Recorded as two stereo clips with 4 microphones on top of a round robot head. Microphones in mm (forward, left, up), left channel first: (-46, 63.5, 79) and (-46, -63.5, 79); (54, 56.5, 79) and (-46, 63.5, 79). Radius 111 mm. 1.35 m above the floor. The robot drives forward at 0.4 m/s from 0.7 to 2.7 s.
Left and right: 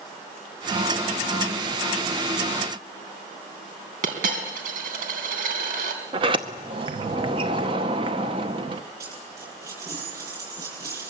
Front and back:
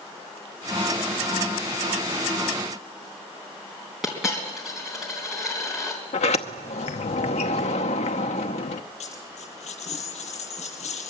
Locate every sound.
4.0 s a dropped coin: 95° right, 3.5 m
6.1 s a sliding door: 30° right, 0.7 m
9.0 s a dropped coin: 20° right, 9 m